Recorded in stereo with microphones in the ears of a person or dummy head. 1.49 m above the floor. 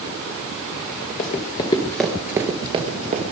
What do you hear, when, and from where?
1.2 s running footsteps: 40° left (ahead or behind), 1.8 m; by 3.2 s 40° right (ahead or behind), 2.5 m